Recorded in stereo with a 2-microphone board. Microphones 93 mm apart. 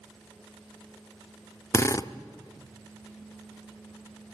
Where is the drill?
30° left (ahead or behind), 0.6 m.